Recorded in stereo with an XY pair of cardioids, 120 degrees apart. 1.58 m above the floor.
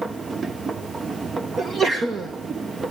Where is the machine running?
25° right, 1.1 m.